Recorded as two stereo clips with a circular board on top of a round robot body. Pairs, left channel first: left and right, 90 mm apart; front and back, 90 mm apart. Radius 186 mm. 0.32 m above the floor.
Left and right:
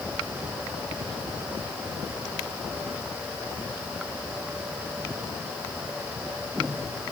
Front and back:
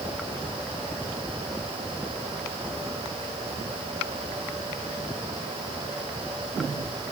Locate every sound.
Only background noise.